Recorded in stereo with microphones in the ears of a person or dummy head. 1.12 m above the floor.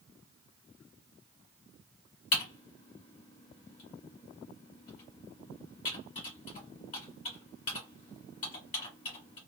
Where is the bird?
I don't hear a bird.